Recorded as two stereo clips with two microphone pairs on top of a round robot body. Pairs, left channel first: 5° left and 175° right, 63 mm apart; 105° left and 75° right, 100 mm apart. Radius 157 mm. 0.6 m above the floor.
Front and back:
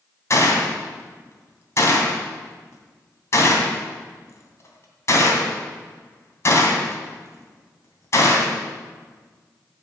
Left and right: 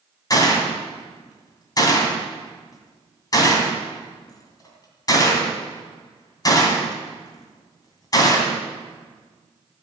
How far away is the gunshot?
About 2.5 m.